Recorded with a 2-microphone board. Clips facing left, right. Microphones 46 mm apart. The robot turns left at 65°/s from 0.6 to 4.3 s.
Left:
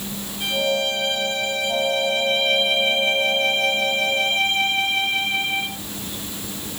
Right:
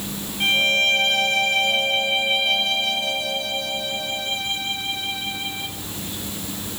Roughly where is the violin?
Ahead right.